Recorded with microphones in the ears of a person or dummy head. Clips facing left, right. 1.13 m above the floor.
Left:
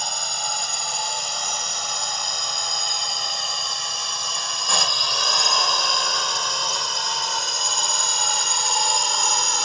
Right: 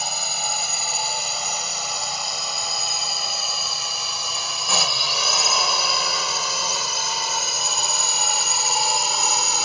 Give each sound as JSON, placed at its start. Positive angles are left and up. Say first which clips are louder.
{"t": 0.0, "sound": "a drone", "louder": "right 1 dB", "side_deg": -5}